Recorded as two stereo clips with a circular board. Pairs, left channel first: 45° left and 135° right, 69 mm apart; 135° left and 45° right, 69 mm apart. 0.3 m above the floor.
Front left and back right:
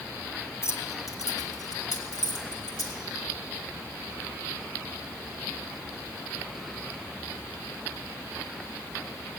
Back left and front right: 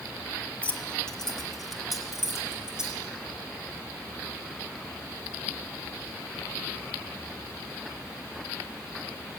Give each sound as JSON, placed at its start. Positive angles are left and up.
{"t": 0.6, "sound": "keys jangling", "azimuth_deg": 70, "distance_m": 1.5}